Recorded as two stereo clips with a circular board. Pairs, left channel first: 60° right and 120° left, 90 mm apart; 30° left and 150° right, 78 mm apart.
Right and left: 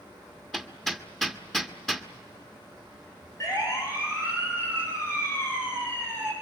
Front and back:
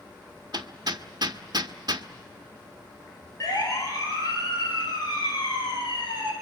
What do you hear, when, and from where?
0.5 s hammering: 145° right, 1.5 m
3.4 s a siren: 10° right, 7.5 m; by 6.3 s 5° left, 9.5 m